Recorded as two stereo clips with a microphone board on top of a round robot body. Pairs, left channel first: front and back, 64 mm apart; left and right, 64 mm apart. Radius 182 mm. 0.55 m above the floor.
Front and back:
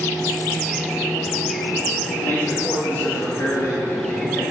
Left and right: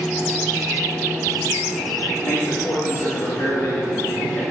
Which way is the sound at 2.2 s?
50° left.